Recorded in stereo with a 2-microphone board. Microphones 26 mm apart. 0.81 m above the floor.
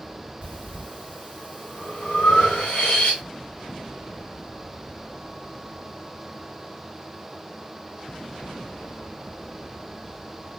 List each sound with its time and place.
0.4 s breathing: 50° left (ahead or behind), 1.6 m